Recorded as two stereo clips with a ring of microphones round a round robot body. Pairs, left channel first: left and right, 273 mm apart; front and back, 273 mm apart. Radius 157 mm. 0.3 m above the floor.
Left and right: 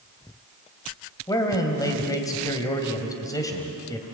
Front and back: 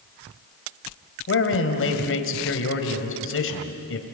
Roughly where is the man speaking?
Ahead.